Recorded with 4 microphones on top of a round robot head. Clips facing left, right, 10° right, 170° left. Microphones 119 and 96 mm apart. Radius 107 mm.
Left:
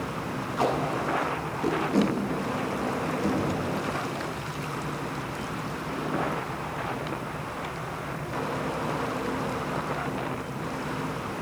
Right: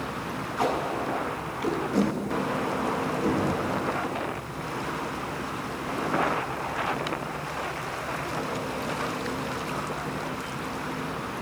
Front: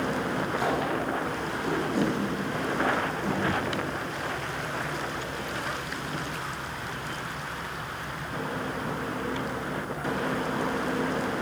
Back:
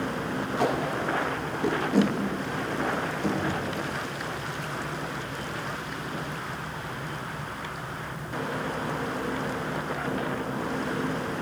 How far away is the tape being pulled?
About 0.7 m.